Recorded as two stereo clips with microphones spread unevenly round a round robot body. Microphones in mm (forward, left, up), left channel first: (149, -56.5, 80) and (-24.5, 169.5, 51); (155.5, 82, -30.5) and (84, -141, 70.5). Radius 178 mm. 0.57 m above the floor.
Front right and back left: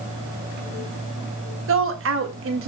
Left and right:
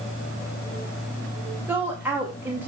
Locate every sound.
1.7 s a woman speaking: 155° left, 1.8 m